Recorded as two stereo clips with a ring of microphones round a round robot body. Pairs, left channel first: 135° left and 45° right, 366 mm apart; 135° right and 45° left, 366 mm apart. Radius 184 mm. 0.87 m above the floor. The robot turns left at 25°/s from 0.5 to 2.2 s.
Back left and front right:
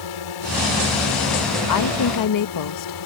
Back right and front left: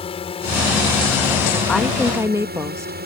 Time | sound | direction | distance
0.0 | a drone | 150° left | ?
1.7 | a woman speaking | 140° left | ?